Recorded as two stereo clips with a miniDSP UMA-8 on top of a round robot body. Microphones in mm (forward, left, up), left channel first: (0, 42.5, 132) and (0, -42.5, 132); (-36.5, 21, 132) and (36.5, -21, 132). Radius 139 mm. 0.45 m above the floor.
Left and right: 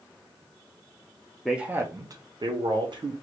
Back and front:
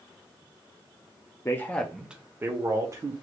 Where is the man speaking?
175° right, 0.8 m; by 3.1 s 75° right, 1.5 m.